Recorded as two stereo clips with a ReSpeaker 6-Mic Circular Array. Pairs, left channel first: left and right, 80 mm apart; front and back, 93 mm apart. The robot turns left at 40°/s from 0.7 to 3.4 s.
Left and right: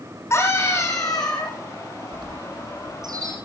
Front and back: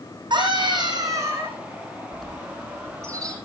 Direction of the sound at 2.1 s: 85° right.